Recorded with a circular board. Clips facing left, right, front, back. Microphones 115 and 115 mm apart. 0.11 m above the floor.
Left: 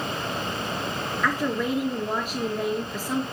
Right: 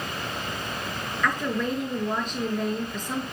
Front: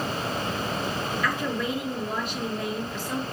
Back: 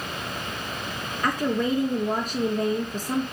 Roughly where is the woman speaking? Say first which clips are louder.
Left 1 dB, back 7 dB; behind.